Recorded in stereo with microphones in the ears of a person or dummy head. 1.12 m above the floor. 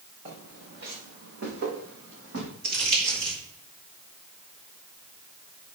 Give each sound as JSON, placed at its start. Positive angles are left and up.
{"t": 0.2, "sound": "footsteps", "side_deg": -45, "distance_m": 5.0}
{"t": 2.6, "sound": "crumpling", "side_deg": -65, "distance_m": 4.0}